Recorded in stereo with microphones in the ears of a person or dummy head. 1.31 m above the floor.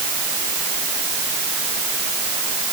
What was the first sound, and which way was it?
Only background noise.